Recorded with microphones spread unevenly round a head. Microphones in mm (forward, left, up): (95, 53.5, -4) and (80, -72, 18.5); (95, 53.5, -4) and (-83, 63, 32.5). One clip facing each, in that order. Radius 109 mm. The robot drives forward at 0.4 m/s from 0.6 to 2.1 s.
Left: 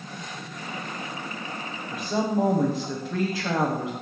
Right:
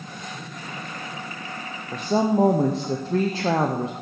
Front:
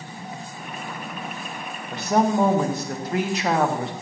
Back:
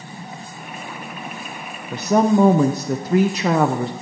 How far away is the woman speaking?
About 0.6 m.